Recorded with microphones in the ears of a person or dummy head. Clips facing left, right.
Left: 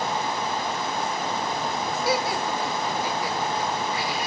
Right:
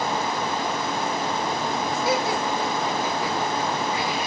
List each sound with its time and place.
2.0 s laughter: 30° right (ahead or behind), 1.3 m